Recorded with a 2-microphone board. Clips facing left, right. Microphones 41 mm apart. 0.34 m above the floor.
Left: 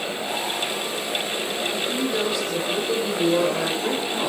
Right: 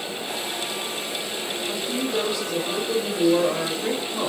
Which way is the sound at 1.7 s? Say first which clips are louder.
Even; centre (ahead or behind).